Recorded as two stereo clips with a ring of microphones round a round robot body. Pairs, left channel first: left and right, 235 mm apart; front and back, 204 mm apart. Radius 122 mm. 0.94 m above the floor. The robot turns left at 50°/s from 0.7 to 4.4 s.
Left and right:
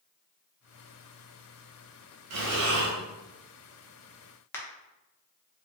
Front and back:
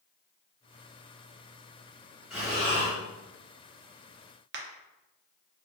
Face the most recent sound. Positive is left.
turn(degrees=170)